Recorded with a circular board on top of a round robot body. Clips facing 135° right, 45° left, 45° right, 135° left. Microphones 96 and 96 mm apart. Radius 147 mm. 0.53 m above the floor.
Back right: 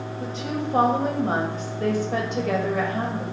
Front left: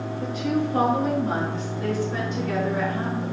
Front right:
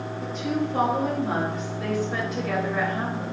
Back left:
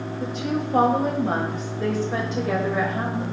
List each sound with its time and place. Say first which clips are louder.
0.2 s a woman speaking: front left 4 dB, even; 160° left, 3 m; by 3.2 s 145° right, 3 m